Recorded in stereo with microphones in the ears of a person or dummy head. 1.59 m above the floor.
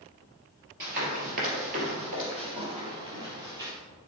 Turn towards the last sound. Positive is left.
turn(degrees=-20)  # may be behind; listen again after turning